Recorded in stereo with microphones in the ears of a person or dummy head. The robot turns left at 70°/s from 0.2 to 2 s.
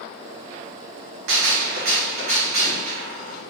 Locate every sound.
1.3 s a gunshot: 85° right, 1.0 m; by 3.4 s 135° right, 1.0 m